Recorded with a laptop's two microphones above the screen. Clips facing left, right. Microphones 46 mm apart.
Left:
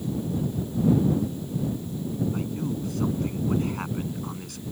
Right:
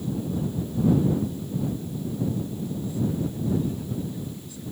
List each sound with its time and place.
2.3 s a man speaking: 65° left (ahead or behind)